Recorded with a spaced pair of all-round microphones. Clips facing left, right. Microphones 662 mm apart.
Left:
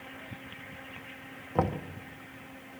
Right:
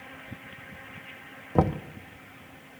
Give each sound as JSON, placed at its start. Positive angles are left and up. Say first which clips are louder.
{"t": 1.6, "sound": "knocking", "louder": "right 5 dB", "side_deg": -60, "distance_m": 0.7}